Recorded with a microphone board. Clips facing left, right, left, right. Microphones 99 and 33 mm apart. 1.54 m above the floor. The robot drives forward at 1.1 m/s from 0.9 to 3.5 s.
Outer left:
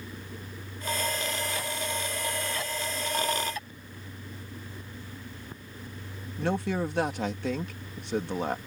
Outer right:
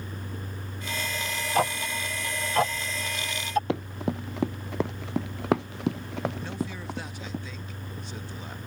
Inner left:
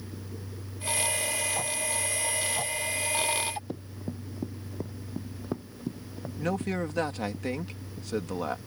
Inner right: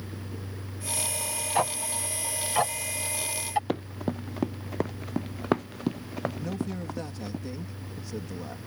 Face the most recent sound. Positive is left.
turn(degrees=65)  # may be behind; listen again after turning